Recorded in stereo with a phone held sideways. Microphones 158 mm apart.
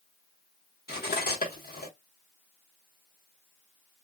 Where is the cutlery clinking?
80° left, 1.2 m.